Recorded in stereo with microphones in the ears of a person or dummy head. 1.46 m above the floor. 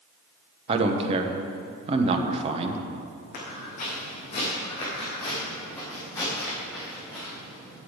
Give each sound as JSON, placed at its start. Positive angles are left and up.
{"t": 0.7, "sound": "a man speaking", "side_deg": -30, "distance_m": 1.0}
{"t": 3.3, "sound": "footsteps", "side_deg": 50, "distance_m": 4.0}